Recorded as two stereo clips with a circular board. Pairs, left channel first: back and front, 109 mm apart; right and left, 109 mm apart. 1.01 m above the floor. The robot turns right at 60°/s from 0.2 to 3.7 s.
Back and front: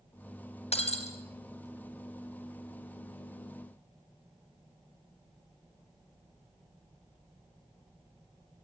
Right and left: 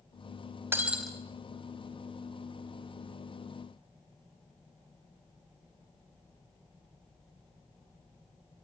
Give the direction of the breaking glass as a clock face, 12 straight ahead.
7 o'clock.